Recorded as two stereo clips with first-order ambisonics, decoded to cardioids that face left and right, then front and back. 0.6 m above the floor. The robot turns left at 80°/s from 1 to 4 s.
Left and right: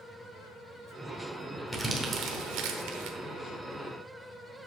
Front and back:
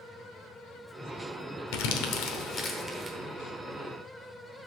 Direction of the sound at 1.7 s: Straight ahead.